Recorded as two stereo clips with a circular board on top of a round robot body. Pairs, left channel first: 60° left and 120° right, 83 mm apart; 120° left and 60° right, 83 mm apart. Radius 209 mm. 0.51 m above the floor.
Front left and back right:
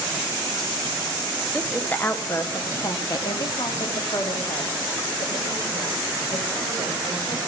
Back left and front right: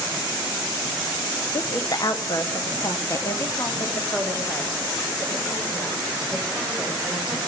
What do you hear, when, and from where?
1.5 s a woman speaking: 140° left, 1.5 m; by 7.4 s 45° left, 4.5 m